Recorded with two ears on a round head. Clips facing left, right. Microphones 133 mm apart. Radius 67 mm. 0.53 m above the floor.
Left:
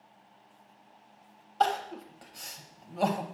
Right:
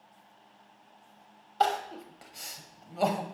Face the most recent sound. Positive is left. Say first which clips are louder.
# even
turn(degrees=-5)  # may be behind; listen again after turning